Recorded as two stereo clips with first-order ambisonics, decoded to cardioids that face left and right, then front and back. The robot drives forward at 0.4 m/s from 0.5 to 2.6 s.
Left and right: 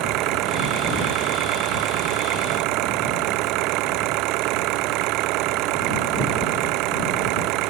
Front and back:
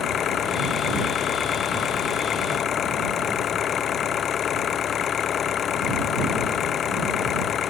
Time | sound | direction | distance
0.0 | an engine running | 60° right | ?